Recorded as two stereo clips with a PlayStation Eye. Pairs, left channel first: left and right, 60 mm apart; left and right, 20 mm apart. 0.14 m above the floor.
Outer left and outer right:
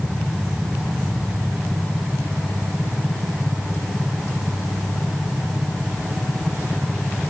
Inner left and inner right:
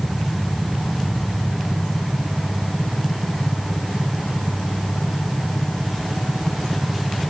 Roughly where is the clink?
I don't hear a clink.